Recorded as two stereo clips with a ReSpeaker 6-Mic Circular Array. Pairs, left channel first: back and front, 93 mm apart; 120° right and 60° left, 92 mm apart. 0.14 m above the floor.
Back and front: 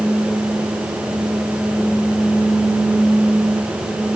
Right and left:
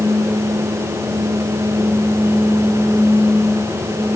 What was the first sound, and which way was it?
Only background noise.